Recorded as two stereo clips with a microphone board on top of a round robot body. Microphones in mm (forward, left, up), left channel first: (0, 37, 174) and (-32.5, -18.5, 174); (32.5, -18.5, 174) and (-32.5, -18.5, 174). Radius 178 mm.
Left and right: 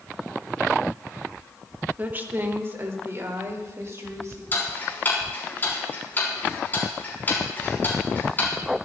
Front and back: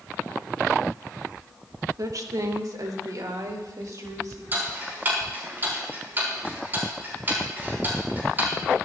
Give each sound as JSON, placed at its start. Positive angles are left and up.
{"t": 2.0, "sound": "a woman speaking", "azimuth_deg": 180, "distance_m": 2.0}
{"t": 4.5, "sound": "ticking", "azimuth_deg": 120, "distance_m": 6.0}